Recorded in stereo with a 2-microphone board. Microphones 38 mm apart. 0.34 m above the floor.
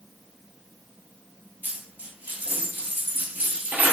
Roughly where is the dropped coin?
Right.